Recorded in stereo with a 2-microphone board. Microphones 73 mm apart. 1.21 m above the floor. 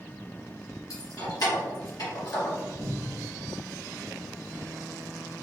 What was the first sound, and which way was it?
Keys jangling, 60° left (ahead or behind).